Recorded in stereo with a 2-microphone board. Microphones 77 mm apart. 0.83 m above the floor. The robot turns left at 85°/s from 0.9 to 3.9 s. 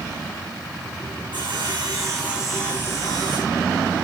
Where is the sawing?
80° right, 8.5 m; by 3.6 s 90° left, 8.5 m.